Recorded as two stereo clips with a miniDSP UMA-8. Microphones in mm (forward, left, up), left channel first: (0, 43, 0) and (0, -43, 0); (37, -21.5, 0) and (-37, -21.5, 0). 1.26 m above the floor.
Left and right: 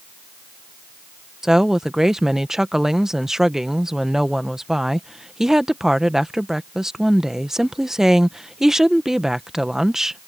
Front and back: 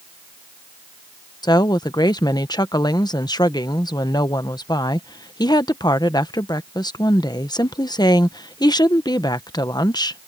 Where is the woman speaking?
5° right.